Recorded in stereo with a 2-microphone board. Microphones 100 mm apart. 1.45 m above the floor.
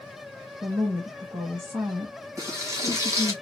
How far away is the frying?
About 1.9 m.